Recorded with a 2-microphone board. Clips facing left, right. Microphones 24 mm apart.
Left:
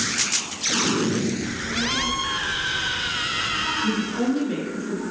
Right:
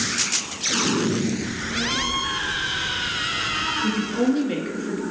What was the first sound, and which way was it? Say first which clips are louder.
A child speaking: even; 45° left (ahead or behind).